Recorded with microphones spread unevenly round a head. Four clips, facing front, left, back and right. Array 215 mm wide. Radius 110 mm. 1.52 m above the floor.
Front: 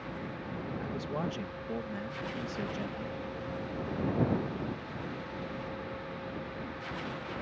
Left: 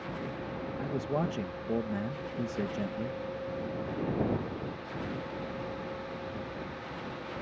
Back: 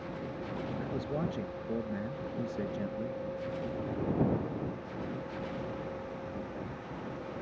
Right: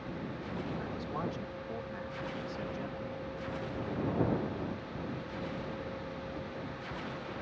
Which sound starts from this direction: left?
A man speaking, at 0.8 s.